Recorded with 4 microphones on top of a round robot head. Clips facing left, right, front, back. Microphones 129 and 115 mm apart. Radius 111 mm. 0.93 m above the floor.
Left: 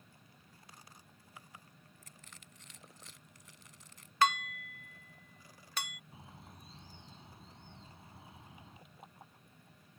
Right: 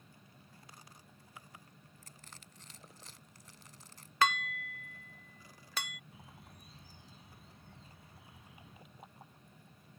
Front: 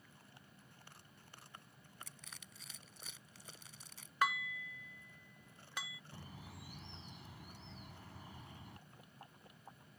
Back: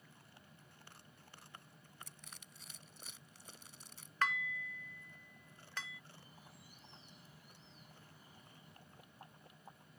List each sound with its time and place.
2.0 s crushing: 25° right
4.2 s dishes clattering: 85° right
6.1 s a bird: 20° left